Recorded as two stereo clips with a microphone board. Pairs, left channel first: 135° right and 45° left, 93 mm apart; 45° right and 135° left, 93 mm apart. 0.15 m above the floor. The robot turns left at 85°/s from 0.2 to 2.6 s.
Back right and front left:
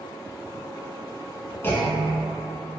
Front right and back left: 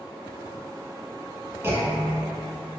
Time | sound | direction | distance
1.6 | a clunk | 175° left | 0.6 m